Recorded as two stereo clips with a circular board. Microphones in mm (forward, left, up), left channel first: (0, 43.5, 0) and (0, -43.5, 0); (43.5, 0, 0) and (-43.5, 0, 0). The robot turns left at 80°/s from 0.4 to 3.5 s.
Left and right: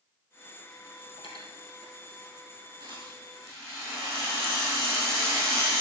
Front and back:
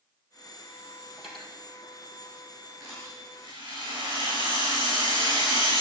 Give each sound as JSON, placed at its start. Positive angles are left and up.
{"t": 1.2, "sound": "cutlery clinking", "azimuth_deg": 100, "distance_m": 2.5}
{"t": 2.8, "sound": "a rattle", "azimuth_deg": -95, "distance_m": 5.5}